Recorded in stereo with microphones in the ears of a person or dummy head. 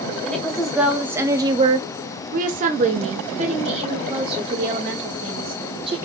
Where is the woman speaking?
5° left (ahead or behind), 1.3 m; by 6.0 s 30° right (ahead or behind), 3 m.